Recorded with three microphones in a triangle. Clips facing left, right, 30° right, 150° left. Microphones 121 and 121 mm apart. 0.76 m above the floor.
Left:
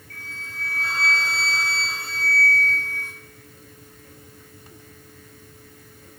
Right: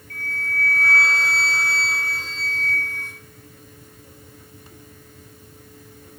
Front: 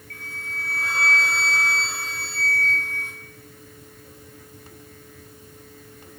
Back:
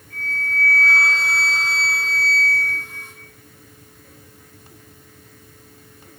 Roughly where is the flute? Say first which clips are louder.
Right 10 dB, back 10 dB; ahead right.